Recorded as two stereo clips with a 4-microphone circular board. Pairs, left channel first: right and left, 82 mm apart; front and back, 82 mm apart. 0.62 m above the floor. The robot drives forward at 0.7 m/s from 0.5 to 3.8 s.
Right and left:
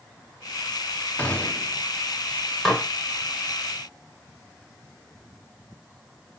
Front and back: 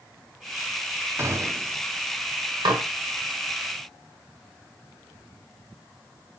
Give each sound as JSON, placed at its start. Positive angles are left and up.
{"t": 1.2, "sound": "a gunshot", "azimuth_deg": -150, "distance_m": 1.0}
{"t": 2.6, "sound": "dishes clattering", "azimuth_deg": -175, "distance_m": 1.7}